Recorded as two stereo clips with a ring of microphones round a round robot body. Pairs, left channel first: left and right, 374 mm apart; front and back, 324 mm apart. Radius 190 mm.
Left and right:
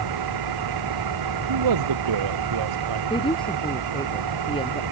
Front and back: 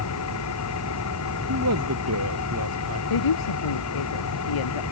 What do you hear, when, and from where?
0.0 s an engine running: 55° right
1.5 s a man speaking: 125° right
3.1 s a woman speaking: 10° left